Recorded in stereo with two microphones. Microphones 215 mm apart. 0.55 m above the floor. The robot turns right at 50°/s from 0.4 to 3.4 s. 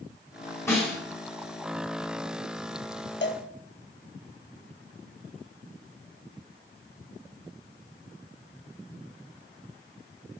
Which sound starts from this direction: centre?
A snare drum, at 0.7 s.